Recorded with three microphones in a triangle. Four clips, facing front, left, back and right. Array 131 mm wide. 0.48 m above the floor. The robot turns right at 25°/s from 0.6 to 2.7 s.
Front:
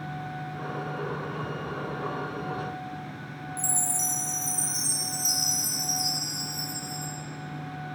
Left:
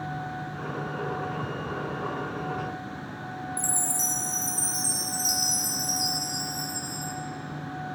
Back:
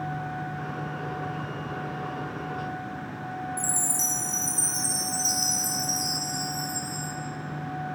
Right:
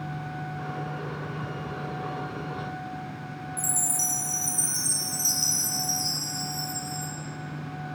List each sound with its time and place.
3.6 s a chime: 160° left, 1.3 m